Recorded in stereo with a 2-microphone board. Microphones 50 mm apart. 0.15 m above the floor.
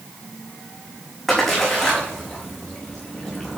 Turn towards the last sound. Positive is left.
turn(degrees=5)  # may be behind; listen again after turning